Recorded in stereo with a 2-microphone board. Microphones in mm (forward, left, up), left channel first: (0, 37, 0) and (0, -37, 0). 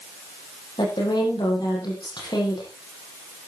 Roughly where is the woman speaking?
Left.